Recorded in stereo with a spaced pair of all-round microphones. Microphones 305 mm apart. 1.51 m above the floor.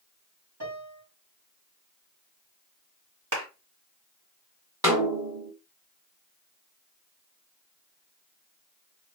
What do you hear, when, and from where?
0.6 s a piano: 70° right (ahead or behind), 2.5 m
3.3 s a clap: 85° right, 1.4 m
4.8 s a snare drum: 10° right (ahead or behind), 1.4 m